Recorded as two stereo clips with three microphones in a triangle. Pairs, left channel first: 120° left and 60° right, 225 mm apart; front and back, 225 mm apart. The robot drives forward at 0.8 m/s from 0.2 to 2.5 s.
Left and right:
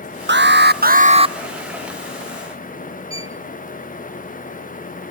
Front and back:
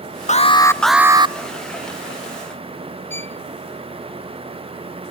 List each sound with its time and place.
0.3 s an alarm: 45° right, 0.9 m; by 1.4 s 125° right, 0.8 m
3.1 s a violin: 10° left, 0.6 m